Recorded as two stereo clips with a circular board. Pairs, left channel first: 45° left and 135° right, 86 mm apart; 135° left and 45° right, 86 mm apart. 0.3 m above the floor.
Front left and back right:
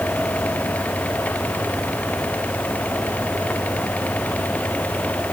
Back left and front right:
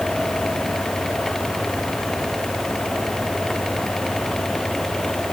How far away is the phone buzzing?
No phone buzzing in this recording.